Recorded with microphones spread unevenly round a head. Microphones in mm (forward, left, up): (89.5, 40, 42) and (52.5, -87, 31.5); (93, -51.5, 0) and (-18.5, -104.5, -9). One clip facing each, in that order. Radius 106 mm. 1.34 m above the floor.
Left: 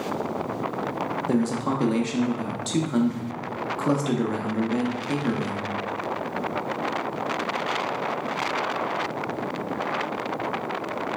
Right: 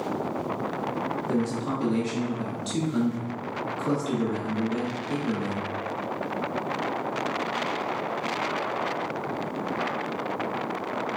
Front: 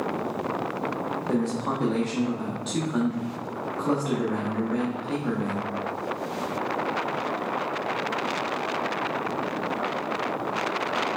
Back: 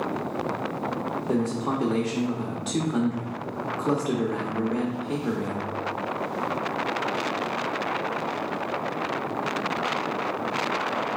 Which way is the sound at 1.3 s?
120° left.